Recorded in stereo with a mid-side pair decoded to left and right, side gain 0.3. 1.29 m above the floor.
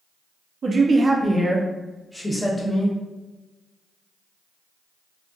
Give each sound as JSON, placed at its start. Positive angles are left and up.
{"t": 0.6, "sound": "a man speaking", "azimuth_deg": -65, "distance_m": 0.8}